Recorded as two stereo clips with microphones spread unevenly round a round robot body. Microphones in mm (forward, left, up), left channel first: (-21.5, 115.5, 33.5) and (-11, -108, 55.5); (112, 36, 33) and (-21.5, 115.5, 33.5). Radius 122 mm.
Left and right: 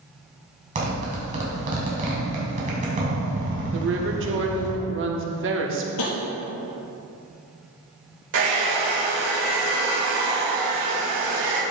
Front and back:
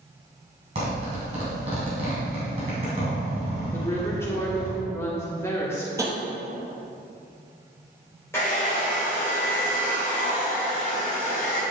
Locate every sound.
0.8 s a zipper: 145° right, 3 m
3.7 s a woman speaking: 105° right, 1.4 m
6.0 s tapping: 80° left, 2.5 m
8.3 s a hair dryer: 110° right, 3 m